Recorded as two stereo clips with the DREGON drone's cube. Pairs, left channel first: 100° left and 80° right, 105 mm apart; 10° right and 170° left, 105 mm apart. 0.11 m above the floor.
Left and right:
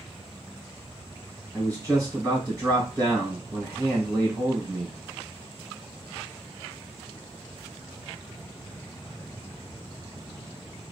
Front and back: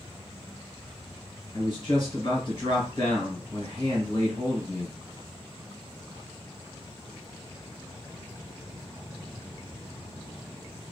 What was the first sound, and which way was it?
A man speaking, 30° right.